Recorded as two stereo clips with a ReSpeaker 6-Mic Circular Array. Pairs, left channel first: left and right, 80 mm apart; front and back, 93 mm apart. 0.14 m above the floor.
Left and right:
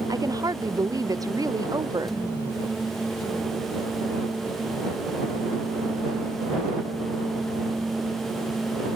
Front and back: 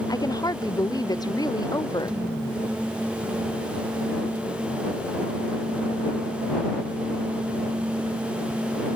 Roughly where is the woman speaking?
Ahead right.